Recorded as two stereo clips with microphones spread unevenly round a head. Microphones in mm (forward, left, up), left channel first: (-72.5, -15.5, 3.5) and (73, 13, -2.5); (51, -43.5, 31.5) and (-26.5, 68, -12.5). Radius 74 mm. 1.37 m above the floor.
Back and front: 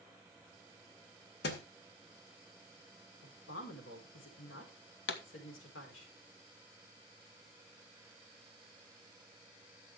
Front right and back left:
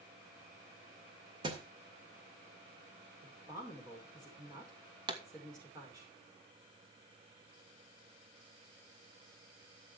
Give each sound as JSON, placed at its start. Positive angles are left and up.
{"t": 1.4, "sound": "a thud", "azimuth_deg": -170, "distance_m": 2.0}
{"t": 3.2, "sound": "a woman speaking", "azimuth_deg": -165, "distance_m": 5.0}
{"t": 5.1, "sound": "a pop", "azimuth_deg": 180, "distance_m": 1.4}